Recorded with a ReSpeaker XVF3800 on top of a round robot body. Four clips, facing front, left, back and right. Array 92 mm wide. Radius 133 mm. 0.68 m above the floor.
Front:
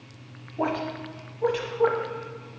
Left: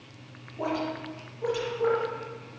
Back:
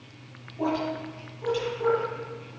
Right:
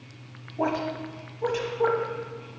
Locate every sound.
0.6 s a woman speaking: 30° right, 1.3 m